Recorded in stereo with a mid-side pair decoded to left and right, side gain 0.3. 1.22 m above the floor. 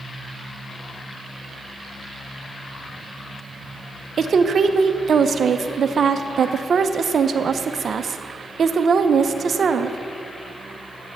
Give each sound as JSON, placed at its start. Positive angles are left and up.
{"t": 4.2, "sound": "a woman speaking", "azimuth_deg": -65, "distance_m": 0.6}